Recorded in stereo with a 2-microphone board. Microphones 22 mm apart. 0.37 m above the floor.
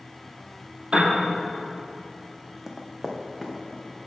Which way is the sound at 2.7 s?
20° right (ahead or behind).